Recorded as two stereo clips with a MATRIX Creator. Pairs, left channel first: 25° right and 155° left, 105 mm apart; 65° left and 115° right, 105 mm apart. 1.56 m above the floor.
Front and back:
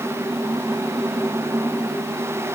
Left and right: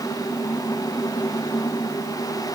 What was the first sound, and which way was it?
Only background noise.